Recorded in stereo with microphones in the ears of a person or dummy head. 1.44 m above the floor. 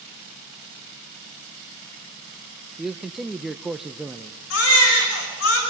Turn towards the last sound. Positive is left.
turn(degrees=85)